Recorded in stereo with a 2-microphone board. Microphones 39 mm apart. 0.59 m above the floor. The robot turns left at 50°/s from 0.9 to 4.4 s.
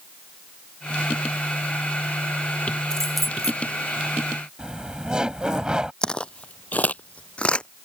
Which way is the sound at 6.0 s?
20° left (ahead or behind).